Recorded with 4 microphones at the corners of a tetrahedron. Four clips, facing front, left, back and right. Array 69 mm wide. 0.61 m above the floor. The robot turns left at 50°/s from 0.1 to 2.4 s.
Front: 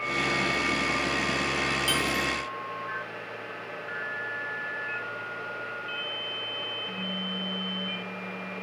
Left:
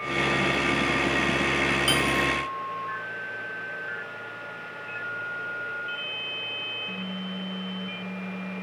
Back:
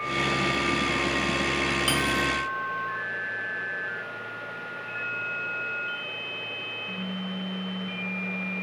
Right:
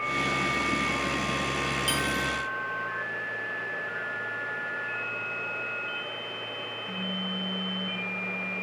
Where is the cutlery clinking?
135° left, 1.6 m; by 2.3 s 115° left, 1.6 m.